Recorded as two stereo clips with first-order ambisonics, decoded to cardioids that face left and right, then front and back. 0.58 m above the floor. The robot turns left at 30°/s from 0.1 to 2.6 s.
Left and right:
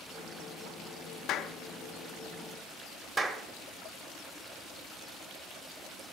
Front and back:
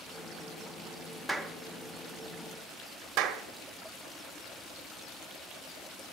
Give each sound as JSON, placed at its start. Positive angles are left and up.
{"t": 1.3, "sound": "a clap", "azimuth_deg": 90, "distance_m": 0.7}
{"t": 3.2, "sound": "a clap", "azimuth_deg": -160, "distance_m": 1.3}